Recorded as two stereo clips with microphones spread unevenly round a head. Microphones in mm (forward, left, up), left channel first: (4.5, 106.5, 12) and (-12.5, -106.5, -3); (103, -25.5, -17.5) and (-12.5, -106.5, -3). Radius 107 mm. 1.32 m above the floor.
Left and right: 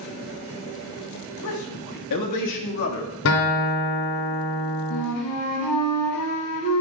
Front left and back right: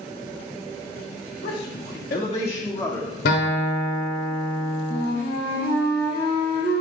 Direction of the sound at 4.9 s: 80° left.